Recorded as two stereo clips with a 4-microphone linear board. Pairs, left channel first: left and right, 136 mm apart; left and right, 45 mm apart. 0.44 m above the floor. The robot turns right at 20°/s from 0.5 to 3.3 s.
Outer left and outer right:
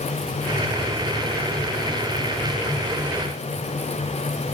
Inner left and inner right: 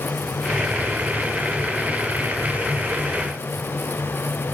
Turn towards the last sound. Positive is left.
No sound to turn to.